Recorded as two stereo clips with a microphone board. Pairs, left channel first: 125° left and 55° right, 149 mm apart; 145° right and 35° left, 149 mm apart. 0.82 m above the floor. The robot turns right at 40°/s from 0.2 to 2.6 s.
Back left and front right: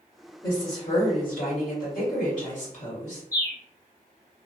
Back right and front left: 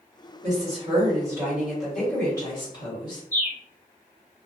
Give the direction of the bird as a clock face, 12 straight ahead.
6 o'clock.